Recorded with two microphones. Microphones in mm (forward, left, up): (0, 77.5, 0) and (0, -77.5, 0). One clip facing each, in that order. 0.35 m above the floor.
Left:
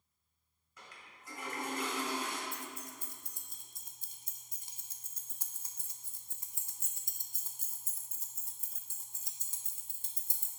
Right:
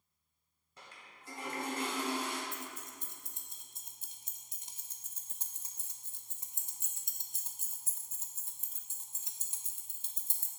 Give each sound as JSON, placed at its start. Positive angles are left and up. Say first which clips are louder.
{"t": 0.8, "sound": "a toilet flushing", "louder": "even", "side_deg": -30, "distance_m": 1.5}
{"t": 2.5, "sound": "keys jangling", "louder": "even", "side_deg": -20, "distance_m": 0.6}